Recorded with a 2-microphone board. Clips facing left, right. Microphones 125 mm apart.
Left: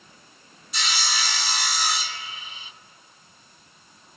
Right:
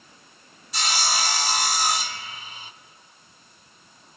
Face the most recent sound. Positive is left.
turn(degrees=-45)  # may be behind; listen again after turning